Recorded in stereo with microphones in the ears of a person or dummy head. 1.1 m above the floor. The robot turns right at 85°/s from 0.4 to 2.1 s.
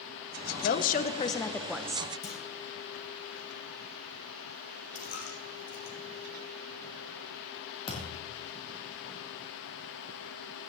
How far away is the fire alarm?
I don't hear a fire alarm.